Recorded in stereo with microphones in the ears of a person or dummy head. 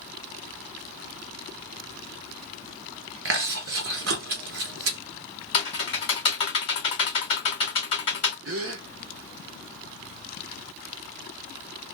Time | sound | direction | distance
3.2 | chewing | 70° right (ahead or behind) | 0.8 m
5.5 | typing on a keyboard | 30° left (ahead or behind) | 1.9 m
8.4 | a gasp | 65° right (ahead or behind) | 0.6 m